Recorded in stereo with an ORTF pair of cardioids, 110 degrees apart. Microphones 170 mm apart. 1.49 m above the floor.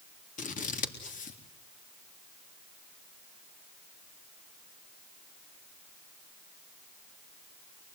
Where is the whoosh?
I don't hear a whoosh.